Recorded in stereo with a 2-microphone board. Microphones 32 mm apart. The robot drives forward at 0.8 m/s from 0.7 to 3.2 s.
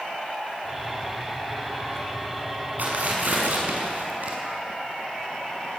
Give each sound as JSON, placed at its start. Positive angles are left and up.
{"t": 2.8, "sound": "tearing paper", "side_deg": -65, "distance_m": 6.0}